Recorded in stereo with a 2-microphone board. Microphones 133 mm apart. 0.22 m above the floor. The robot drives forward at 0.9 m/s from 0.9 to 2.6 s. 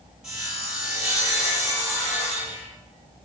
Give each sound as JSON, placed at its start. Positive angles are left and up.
{"t": 0.2, "sound": "sawing", "side_deg": -5, "distance_m": 6.5}